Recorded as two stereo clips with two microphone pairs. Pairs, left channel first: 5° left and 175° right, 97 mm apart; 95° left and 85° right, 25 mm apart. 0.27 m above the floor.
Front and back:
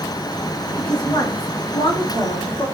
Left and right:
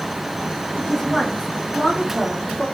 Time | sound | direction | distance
0.8 | a woman speaking | 15° left | 2.5 m